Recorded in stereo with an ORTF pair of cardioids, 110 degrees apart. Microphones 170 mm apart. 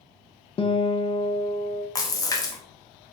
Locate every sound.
0.6 s a guitar: 30° left, 0.6 m
1.9 s a splash: 20° left, 0.8 m